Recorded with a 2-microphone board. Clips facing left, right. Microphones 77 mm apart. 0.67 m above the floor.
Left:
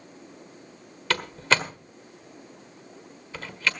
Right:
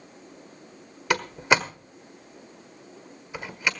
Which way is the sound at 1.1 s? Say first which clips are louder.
Right 2 dB; 15° right (ahead or behind).